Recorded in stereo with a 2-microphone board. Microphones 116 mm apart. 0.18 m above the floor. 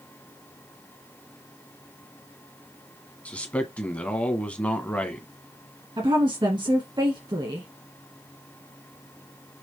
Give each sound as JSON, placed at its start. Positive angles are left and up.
{"t": 3.2, "sound": "a man speaking", "side_deg": 10, "distance_m": 1.4}
{"t": 6.0, "sound": "a woman speaking", "side_deg": -40, "distance_m": 1.7}